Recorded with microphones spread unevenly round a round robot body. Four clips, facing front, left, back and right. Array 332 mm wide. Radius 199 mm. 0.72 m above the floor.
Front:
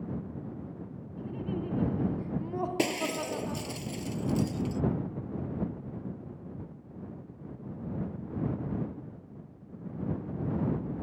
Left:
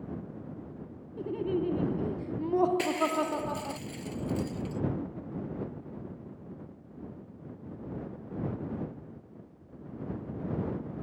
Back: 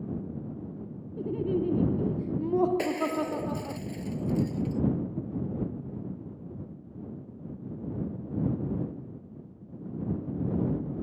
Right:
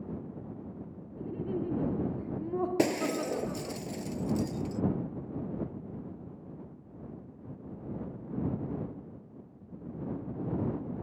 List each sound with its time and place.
1.2 s laughter: 165° left
2.8 s breaking glass: 80° right